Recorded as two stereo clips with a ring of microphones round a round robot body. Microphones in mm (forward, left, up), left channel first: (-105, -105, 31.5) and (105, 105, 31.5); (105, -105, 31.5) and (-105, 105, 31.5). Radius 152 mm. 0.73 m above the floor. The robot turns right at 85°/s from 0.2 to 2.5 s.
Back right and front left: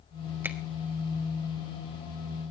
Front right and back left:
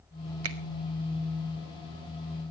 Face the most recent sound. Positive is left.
turn(degrees=-60)